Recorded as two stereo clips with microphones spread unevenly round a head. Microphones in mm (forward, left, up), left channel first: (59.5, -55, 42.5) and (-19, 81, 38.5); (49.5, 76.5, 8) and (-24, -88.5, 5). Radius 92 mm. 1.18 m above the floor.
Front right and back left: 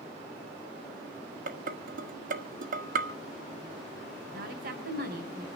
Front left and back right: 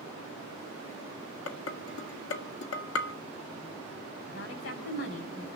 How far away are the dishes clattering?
About 1.8 m.